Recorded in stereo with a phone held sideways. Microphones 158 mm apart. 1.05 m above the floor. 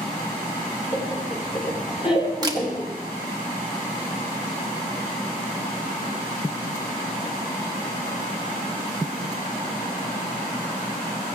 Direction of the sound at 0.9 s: 35° left (ahead or behind).